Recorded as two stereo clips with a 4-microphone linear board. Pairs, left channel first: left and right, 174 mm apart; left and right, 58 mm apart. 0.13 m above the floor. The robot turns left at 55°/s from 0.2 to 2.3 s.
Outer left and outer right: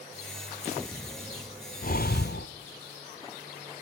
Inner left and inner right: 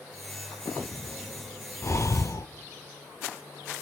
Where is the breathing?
50° left (ahead or behind), 0.5 m; by 2.5 s 70° left (ahead or behind), 0.5 m.